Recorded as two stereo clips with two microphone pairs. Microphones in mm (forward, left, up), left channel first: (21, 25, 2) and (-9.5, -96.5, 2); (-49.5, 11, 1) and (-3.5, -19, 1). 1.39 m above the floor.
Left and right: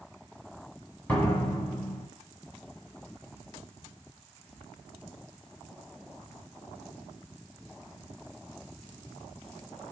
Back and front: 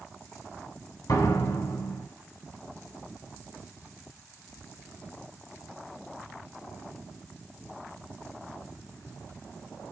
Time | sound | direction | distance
1.1 | a door slam | 155° left | 9.5 m